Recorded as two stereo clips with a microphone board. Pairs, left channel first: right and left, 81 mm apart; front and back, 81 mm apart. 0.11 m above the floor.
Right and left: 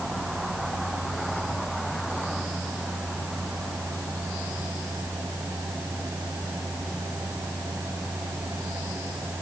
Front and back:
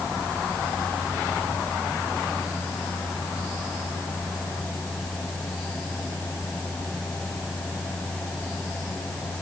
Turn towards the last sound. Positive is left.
No sound to turn to.